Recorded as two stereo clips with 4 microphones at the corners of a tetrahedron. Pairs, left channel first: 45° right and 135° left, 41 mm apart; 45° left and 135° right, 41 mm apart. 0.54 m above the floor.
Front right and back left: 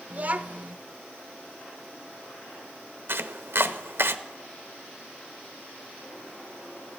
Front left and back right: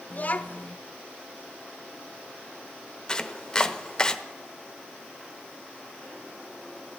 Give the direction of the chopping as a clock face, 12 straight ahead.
8 o'clock.